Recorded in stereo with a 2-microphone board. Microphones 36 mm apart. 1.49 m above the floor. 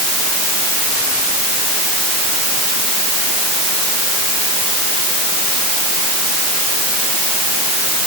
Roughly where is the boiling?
I don't hear boiling.